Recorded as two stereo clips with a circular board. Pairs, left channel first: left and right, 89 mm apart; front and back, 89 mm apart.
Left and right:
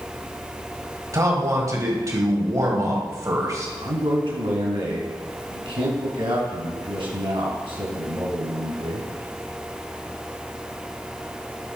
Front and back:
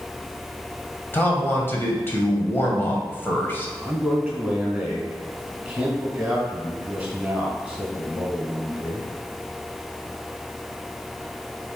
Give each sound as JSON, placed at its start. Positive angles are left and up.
{"t": 1.1, "sound": "a man speaking", "azimuth_deg": -55, "distance_m": 1.9}
{"t": 3.8, "sound": "a man speaking", "azimuth_deg": -100, "distance_m": 3.5}